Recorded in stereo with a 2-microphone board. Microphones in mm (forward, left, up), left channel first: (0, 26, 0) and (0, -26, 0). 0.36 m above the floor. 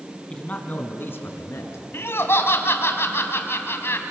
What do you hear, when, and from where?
0.3 s a man speaking: 20° left (ahead or behind), 2.5 m; by 1.8 s 55° left (ahead or behind), 4 m
1.9 s laughter: 50° left (ahead or behind), 2.5 m